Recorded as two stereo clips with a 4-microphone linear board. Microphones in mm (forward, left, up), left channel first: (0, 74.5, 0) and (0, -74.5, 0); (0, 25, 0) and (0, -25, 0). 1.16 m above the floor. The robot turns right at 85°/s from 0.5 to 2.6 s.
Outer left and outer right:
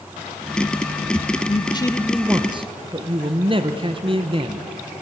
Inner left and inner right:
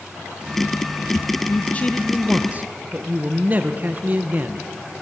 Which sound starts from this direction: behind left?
A man speaking, at 1.5 s.